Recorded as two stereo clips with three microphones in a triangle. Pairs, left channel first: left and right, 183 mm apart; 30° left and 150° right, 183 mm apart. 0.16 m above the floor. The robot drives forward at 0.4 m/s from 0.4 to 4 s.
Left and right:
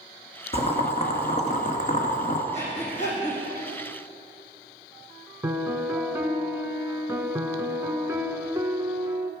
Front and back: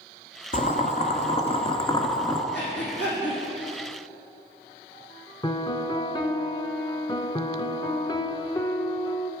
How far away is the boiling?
About 1.5 m.